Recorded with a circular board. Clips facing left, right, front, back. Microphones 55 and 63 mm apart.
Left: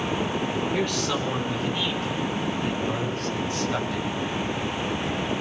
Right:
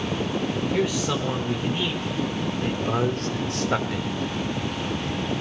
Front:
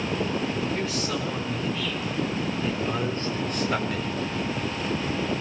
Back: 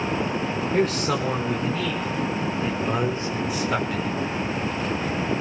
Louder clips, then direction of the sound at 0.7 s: Right 1 dB, back 6 dB; 170° right.